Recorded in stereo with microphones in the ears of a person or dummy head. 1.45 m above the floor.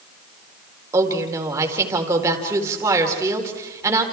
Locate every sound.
0.9 s a woman speaking: 20° right (ahead or behind), 4 m